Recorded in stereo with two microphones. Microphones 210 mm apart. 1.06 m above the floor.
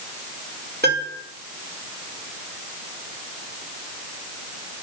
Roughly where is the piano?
Right.